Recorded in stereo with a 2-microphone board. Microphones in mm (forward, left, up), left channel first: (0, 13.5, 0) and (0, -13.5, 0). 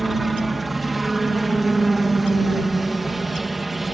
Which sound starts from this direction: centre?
A helicopter, at 0.0 s.